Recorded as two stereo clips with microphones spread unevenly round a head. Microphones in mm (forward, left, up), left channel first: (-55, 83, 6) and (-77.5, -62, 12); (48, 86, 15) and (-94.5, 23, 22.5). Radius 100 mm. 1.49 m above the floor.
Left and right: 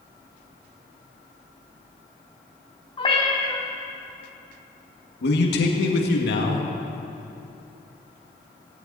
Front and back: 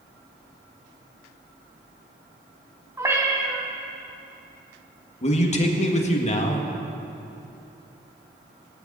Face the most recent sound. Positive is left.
turn(degrees=70)